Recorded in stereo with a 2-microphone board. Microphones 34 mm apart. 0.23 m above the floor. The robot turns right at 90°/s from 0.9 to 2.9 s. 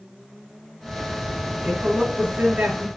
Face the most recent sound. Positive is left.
turn(degrees=-45)